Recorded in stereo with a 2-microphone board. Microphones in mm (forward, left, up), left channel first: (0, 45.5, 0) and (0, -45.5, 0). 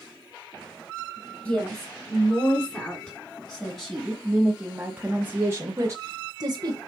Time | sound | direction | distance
1.4 | a woman speaking | 20° left (ahead or behind) | 3 m